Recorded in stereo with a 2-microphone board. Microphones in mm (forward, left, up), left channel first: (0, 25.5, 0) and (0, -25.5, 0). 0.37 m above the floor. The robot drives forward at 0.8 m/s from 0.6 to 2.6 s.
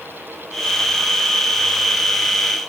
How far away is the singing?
I don't hear singing.